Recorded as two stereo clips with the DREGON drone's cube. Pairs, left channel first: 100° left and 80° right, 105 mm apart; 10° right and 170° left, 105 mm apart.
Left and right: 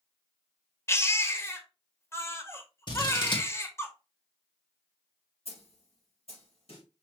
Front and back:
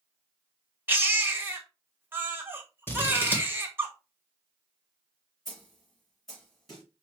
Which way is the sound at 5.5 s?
75° left.